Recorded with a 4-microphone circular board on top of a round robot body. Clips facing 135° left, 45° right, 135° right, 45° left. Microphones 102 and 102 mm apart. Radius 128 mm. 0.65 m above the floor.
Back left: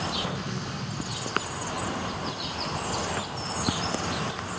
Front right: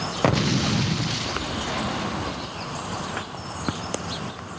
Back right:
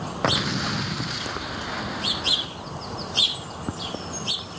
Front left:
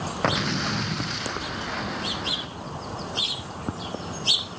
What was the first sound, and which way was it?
An explosion, 50° right.